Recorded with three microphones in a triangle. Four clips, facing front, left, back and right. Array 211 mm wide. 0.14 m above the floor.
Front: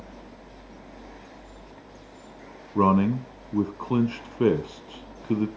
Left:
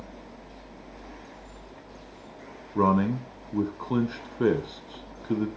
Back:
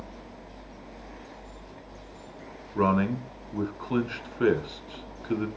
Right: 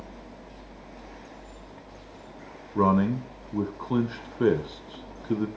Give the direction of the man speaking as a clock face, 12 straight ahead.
12 o'clock.